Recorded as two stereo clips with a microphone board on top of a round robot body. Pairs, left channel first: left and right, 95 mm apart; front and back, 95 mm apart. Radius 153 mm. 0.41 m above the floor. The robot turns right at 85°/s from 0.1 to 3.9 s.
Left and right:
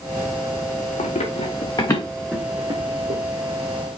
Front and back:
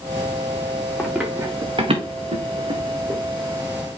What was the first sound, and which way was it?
Running footsteps, 80° left.